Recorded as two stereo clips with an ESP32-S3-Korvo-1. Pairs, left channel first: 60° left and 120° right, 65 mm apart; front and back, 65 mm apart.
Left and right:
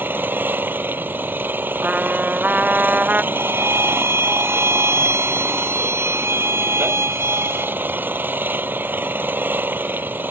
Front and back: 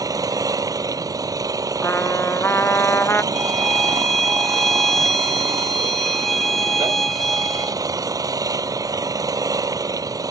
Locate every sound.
0.0 s an engine running: 175° right
1.8 s a trumpet: 55° right
3.3 s a violin: 85° right